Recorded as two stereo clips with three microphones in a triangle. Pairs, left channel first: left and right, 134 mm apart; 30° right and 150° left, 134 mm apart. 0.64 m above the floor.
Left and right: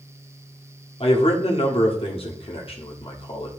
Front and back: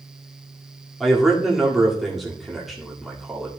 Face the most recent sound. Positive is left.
turn(degrees=60)